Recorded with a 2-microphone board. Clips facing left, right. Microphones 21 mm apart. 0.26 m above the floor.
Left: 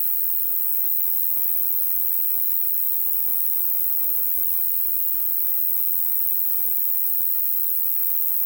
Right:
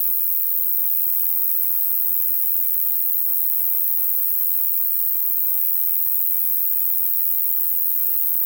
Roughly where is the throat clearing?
I don't hear throat clearing.